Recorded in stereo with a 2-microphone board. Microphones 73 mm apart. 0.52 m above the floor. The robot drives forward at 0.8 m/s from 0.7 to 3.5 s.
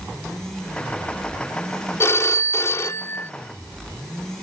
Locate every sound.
2.0 s a phone ringing: 40° left (ahead or behind); by 3.3 s 30° left (ahead or behind)